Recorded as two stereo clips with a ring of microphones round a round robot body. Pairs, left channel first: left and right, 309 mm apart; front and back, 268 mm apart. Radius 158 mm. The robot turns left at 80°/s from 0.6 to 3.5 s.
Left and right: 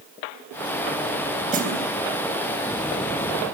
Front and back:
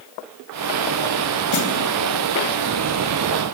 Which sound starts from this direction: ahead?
A snare drum, at 1.5 s.